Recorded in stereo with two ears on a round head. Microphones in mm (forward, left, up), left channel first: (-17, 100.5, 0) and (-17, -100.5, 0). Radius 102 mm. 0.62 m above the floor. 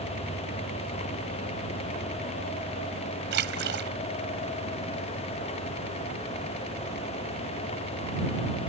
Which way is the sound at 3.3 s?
55° right (ahead or behind).